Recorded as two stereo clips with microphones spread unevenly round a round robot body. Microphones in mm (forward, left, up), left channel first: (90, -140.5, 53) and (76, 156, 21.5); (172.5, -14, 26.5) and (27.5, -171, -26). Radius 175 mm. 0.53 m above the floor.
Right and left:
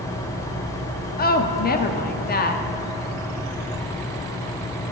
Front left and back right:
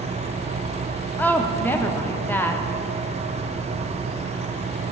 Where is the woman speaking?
55° right, 0.7 m.